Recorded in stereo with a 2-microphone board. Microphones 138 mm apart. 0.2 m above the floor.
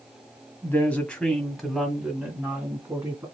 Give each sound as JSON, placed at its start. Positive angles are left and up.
{"t": 0.6, "sound": "a woman speaking", "side_deg": 15, "distance_m": 1.1}